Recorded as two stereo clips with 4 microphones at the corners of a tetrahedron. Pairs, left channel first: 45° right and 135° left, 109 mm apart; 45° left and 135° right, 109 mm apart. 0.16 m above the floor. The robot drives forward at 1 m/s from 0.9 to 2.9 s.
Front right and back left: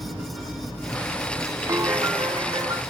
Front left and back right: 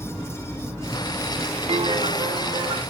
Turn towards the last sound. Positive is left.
turn(degrees=-175)